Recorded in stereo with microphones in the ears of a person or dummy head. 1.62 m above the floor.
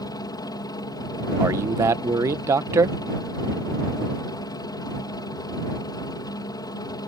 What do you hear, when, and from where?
0.0 s a helicopter: 25° left (ahead or behind)
1.4 s a man speaking: 20° right (ahead or behind)